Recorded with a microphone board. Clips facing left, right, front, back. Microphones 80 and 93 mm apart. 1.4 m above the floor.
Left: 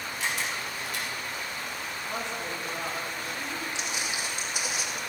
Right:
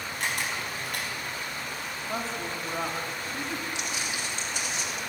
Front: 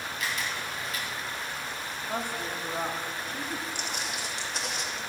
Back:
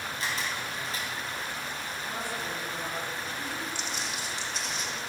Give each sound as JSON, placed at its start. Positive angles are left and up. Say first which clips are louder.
{"t": 0.2, "sound": "a camera shutter", "louder": "right 1 dB, even", "azimuth_deg": -125, "distance_m": 4.0}
{"t": 2.1, "sound": "a woman speaking", "louder": "right 2 dB, front 4 dB", "azimuth_deg": -35, "distance_m": 2.5}
{"t": 3.8, "sound": "footsteps", "louder": "even, front 1 dB", "azimuth_deg": 25, "distance_m": 3.5}